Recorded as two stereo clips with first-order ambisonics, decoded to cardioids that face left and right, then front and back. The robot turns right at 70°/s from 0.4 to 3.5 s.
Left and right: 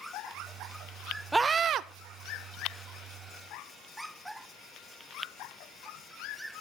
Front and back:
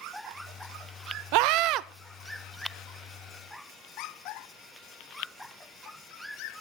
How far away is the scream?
About 0.8 m.